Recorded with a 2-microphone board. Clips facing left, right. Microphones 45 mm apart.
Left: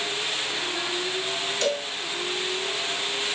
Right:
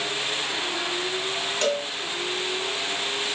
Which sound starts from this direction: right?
A cowbell, at 1.6 s.